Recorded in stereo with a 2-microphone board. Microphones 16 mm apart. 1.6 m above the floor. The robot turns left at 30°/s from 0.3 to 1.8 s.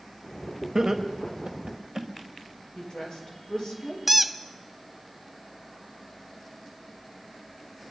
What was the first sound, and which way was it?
Laughter, 35° right (ahead or behind).